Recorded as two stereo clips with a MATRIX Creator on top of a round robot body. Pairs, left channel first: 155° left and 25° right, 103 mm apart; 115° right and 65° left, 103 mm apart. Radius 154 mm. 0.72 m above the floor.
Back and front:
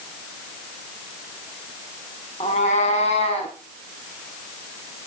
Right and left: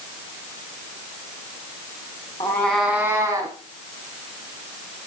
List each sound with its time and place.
2.4 s a cat meowing: 160° right, 0.7 m; by 3.5 s 125° left, 1.2 m